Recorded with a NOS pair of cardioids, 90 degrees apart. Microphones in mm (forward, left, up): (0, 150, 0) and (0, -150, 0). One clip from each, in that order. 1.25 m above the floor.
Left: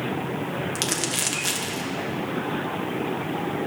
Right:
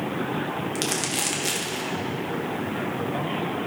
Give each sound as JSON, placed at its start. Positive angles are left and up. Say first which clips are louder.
{"t": 0.8, "sound": "crumpling", "louder": "left 1 dB", "azimuth_deg": 10, "distance_m": 0.9}